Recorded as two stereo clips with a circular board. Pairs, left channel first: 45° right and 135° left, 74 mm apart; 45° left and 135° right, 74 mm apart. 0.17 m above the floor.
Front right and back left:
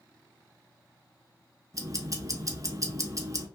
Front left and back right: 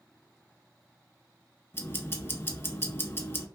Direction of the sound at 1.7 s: 100° left.